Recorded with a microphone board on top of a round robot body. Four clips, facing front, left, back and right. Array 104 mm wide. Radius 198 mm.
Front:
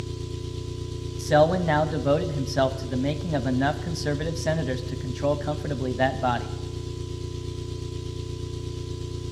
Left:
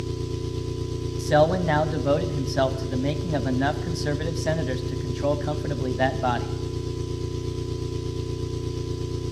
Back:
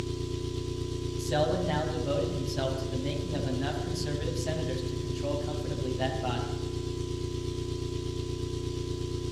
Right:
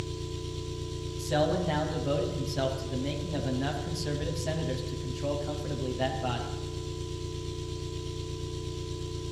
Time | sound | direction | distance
0.0 | an engine running | 100° left | 0.8 m
1.2 | a man speaking | 45° left | 1.1 m